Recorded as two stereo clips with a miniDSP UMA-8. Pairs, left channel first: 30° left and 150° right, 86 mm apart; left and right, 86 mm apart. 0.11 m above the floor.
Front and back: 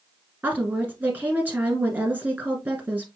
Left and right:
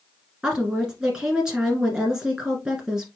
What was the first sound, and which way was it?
A woman speaking, 155° right.